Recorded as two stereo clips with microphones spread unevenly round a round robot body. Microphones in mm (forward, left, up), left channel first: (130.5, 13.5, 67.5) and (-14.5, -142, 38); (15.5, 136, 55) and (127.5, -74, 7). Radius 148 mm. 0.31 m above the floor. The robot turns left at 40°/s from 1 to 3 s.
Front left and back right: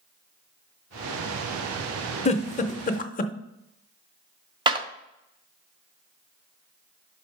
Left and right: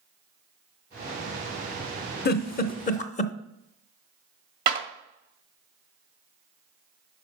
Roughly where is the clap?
Right.